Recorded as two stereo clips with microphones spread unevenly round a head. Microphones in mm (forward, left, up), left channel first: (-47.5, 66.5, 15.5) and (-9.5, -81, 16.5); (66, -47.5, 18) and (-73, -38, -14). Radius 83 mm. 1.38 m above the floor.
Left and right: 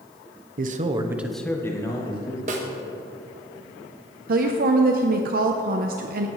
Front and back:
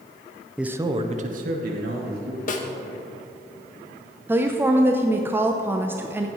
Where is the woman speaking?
105° right, 0.7 m.